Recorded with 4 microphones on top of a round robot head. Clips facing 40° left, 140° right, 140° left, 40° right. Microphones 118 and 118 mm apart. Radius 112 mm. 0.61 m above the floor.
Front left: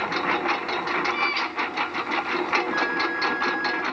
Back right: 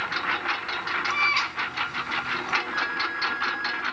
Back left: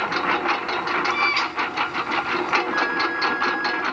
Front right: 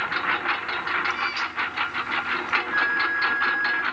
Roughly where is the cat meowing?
Behind.